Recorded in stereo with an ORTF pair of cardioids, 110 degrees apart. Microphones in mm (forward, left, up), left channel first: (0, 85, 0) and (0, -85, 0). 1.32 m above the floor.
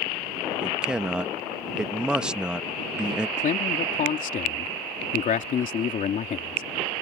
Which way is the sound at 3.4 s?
50° left.